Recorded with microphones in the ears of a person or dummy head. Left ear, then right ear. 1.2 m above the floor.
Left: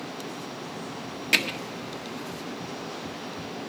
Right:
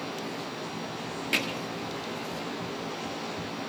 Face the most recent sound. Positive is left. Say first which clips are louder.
# left 5 dB
turn(degrees=20)  # may be behind; listen again after turning